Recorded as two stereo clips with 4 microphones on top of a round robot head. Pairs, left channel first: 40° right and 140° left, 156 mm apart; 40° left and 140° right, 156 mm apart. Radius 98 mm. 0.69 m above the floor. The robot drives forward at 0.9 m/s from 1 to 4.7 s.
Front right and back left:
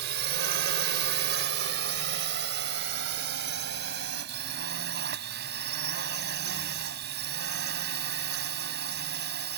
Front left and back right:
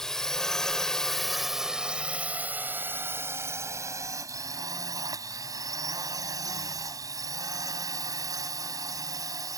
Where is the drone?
130° left; by 9.6 s 155° left.